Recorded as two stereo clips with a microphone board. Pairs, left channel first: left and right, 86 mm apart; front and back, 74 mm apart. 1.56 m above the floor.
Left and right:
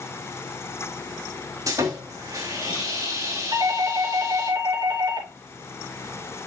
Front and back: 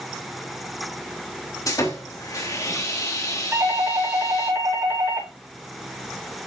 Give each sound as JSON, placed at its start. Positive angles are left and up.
{"t": 1.7, "sound": "sawing", "azimuth_deg": -40, "distance_m": 3.0}
{"t": 3.5, "sound": "a doorbell", "azimuth_deg": -130, "distance_m": 3.5}